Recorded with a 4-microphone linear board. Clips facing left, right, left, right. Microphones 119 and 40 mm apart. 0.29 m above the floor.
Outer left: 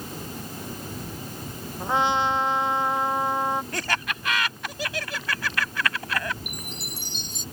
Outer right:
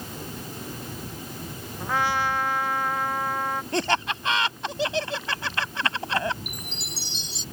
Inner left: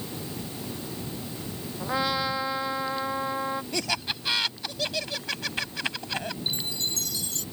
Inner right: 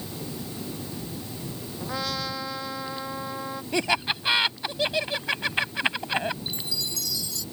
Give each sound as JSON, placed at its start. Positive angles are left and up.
{"t": 1.8, "sound": "a trumpet", "side_deg": 20}
{"t": 3.7, "sound": "laughter", "side_deg": -25}
{"t": 6.5, "sound": "a chime", "side_deg": 50}